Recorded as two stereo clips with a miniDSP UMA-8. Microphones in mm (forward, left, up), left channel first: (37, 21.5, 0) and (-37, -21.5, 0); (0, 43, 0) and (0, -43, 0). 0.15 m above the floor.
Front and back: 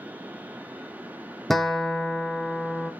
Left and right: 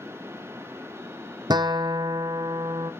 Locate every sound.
1.5 s a guitar: 55° right, 1.0 m